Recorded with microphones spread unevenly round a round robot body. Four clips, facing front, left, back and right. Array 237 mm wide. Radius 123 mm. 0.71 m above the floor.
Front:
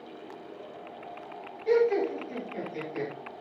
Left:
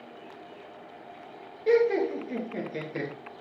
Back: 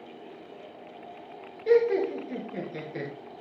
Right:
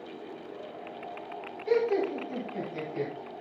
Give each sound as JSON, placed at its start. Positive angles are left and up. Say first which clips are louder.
{"t": 1.7, "sound": "laughter", "louder": "left 4 dB, back 2 dB", "azimuth_deg": 140, "distance_m": 9.0}